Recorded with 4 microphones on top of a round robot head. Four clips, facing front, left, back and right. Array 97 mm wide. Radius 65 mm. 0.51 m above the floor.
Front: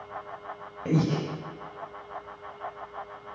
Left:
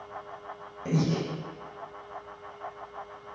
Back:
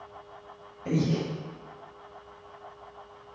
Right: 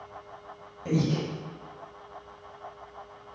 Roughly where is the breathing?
Ahead.